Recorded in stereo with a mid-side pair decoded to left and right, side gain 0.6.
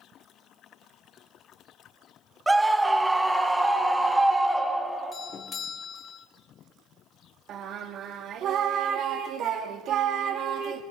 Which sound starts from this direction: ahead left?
A doorbell, at 5.1 s.